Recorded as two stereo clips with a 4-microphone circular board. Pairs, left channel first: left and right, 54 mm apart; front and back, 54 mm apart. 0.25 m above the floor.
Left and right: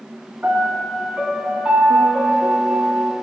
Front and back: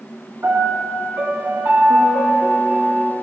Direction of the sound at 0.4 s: 155° right.